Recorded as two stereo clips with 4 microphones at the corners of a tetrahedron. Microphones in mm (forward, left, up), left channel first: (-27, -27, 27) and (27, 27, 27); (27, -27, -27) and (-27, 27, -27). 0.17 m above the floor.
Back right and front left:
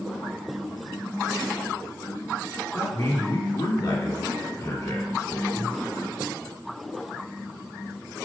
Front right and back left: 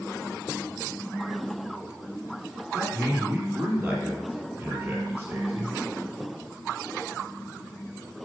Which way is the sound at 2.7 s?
160° right.